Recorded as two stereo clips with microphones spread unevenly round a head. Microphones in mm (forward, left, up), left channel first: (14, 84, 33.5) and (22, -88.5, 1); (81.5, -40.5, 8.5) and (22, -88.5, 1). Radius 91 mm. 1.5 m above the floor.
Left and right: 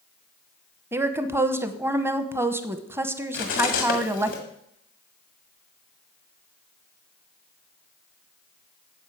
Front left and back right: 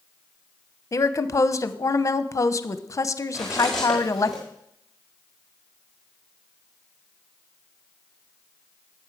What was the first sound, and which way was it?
A woman speaking, 5° right.